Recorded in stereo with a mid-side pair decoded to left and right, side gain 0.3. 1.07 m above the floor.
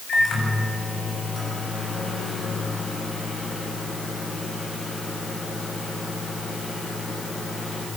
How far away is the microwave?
About 7 m.